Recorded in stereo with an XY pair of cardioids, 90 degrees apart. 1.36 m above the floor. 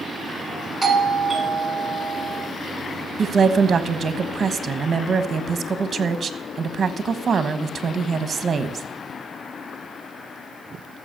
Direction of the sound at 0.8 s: 30° right.